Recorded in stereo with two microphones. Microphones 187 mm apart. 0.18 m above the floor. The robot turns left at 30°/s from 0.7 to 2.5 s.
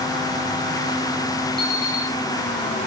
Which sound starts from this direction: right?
An alarm clock, at 1.6 s.